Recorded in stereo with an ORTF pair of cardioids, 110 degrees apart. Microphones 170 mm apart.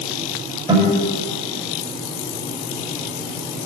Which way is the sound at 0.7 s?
25° right.